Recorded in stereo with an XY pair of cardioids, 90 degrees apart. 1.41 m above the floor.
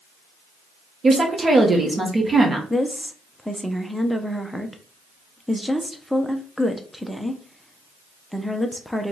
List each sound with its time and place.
1.0 s a woman speaking: 35° right, 1.2 m
2.7 s a woman speaking: 5° left, 0.6 m